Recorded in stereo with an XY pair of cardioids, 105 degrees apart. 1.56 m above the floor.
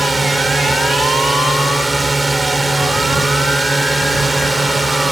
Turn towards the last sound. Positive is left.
turn(degrees=-15)